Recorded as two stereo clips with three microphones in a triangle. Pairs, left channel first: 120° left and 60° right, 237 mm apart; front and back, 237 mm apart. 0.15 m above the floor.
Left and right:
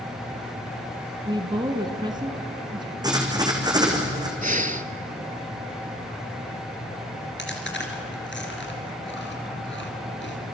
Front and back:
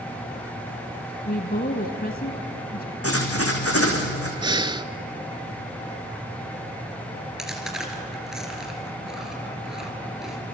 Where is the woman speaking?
Straight ahead, 1.5 m.